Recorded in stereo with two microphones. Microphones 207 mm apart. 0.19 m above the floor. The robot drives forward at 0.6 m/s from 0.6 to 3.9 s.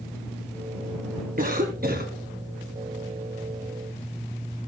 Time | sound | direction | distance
1.4 | a cough | 45° right (ahead or behind) | 1.8 m